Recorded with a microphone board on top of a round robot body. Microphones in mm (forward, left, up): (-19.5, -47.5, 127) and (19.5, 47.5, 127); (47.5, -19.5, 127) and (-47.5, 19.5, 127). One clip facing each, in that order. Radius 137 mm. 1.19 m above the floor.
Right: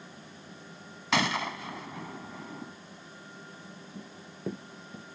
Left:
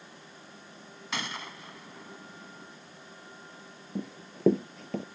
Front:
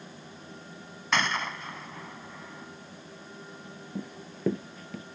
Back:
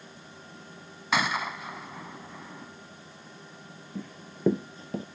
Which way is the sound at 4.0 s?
50° left.